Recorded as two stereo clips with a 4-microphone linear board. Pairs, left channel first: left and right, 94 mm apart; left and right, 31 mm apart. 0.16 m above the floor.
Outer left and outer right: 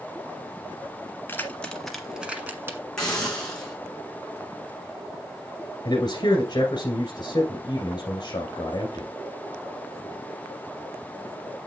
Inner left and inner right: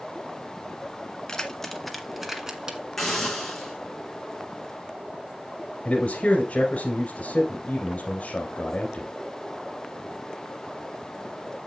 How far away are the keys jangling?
About 1.3 m.